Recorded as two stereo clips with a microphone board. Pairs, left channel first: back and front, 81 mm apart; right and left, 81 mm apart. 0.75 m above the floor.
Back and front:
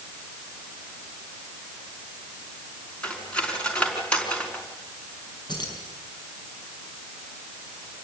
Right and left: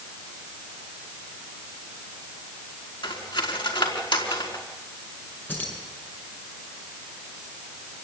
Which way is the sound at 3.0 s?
105° right.